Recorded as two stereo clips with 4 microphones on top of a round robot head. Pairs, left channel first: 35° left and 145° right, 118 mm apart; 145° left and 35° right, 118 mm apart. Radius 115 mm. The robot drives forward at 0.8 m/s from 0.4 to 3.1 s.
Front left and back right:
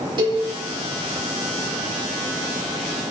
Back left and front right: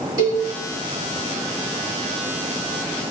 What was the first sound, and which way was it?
A cowbell, 95° right.